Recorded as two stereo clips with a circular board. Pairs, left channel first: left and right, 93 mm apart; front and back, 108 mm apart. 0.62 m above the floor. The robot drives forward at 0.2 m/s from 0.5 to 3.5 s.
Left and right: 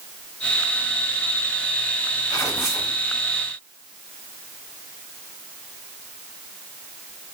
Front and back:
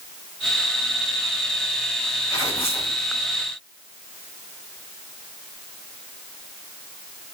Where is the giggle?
I don't hear a giggle.